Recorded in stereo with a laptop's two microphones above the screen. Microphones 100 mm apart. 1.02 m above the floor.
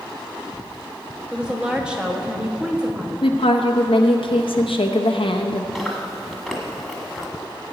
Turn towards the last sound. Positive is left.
turn(degrees=0)  # may be behind; listen again after turning